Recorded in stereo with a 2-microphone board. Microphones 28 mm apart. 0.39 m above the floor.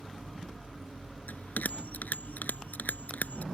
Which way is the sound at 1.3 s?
80° left.